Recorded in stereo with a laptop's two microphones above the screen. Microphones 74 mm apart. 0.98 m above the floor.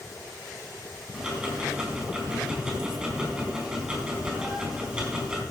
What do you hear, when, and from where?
1.1 s ticking: 10° right (ahead or behind), 4 m